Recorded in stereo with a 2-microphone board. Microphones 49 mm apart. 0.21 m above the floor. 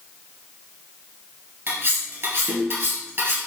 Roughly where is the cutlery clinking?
Right.